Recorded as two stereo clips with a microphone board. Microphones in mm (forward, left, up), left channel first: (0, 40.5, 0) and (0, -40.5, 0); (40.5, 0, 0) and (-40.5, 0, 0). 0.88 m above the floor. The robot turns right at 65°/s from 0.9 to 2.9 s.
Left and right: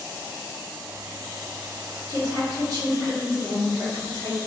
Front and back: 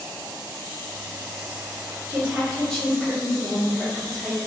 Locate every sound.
2.1 s a woman speaking: 125° right, 1.3 m; by 4.4 s 70° right, 1.3 m